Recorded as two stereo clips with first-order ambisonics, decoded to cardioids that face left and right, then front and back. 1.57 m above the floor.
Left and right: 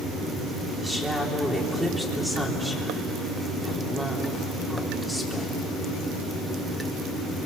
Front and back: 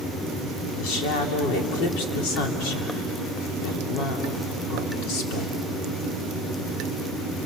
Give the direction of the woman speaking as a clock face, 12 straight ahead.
12 o'clock.